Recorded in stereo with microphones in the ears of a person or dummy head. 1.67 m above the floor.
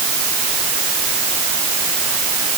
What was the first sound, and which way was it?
Only background noise.